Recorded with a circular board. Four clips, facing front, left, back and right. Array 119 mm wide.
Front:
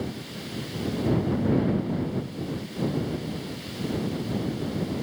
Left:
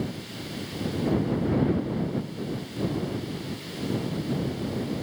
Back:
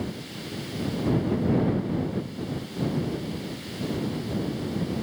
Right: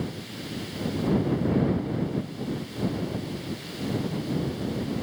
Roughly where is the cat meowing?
No cat meowing in this recording.